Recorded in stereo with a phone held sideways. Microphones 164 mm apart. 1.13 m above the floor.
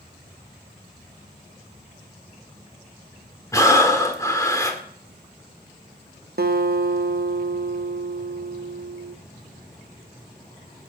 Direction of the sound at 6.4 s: 65° right (ahead or behind).